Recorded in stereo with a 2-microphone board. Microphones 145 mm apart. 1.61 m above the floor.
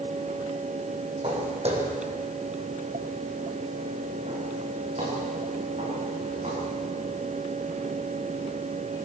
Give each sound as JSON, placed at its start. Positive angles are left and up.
{"t": 1.2, "sound": "footsteps", "side_deg": -45, "distance_m": 4.5}